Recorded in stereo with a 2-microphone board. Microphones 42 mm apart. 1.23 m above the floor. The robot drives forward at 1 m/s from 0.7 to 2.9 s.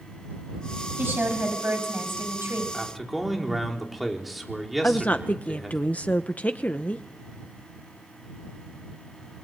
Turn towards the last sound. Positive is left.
turn(degrees=35)  # may be behind; listen again after turning